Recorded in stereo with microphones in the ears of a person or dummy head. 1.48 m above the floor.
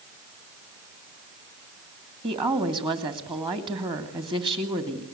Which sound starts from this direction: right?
A woman speaking, at 2.2 s.